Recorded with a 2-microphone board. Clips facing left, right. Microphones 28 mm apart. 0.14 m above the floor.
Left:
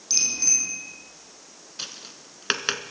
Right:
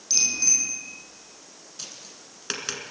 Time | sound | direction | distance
0.1 | a bicycle bell | 5° left (ahead or behind) | 4.5 m
1.8 | tapping | 40° left (ahead or behind) | 1.1 m